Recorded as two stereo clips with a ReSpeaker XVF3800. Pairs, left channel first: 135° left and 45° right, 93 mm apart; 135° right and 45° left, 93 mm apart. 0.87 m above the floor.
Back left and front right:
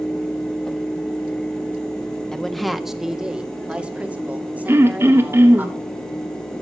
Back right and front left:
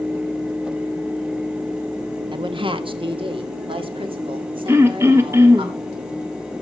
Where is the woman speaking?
50° left, 0.8 m; by 5.7 s 25° left, 2.5 m.